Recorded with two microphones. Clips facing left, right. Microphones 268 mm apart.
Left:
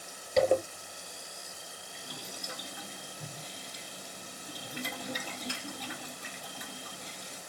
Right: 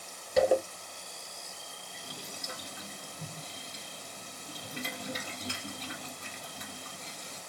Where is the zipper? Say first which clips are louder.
Even; 5° right (ahead or behind), 2 m.